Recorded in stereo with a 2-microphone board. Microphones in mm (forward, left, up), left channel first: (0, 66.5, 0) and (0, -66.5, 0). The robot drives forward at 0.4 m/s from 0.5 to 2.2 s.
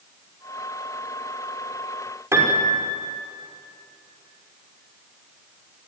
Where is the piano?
20° right (ahead or behind), 6 m.